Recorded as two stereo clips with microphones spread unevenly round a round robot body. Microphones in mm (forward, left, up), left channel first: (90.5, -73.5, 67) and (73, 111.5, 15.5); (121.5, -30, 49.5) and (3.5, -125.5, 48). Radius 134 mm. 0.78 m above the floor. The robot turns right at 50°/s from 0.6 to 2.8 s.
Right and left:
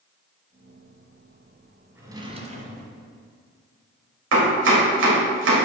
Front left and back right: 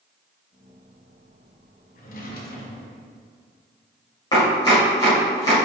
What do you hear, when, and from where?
1.9 s a drawer: 10° left, 1.5 m; by 3.2 s 55° left, 1.5 m
4.3 s chopping: 110° left, 2 m